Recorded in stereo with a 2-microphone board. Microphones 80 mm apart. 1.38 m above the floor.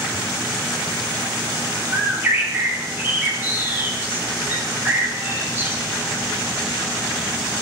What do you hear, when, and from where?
1.9 s a bird: 25° right (ahead or behind), 0.9 m